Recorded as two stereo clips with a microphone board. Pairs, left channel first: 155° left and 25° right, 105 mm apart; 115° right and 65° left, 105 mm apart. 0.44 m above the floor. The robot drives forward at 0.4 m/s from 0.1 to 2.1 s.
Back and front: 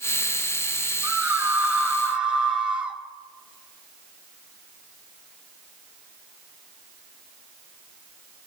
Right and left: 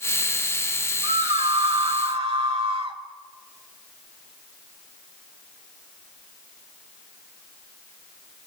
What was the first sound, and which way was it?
A scream, 50° left.